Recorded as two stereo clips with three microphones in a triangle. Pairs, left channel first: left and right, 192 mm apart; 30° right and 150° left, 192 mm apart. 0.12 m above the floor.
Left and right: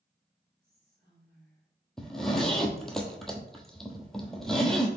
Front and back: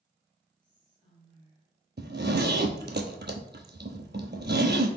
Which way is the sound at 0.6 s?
95° right.